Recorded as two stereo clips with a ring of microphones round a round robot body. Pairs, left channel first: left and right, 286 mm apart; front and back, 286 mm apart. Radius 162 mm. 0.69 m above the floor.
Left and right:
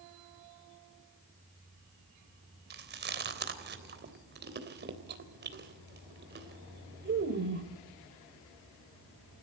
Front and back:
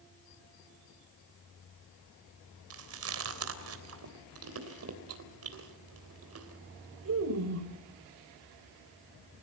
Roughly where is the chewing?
Behind right.